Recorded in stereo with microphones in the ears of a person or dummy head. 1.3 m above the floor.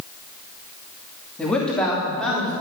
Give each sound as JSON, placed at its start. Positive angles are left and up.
{"t": 1.4, "sound": "a man speaking", "side_deg": 5, "distance_m": 2.5}